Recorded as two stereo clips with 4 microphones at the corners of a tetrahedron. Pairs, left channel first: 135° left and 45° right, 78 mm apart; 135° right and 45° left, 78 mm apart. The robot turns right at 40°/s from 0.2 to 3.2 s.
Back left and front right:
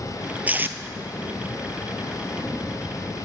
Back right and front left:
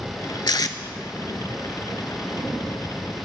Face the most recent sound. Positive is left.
turn(degrees=-5)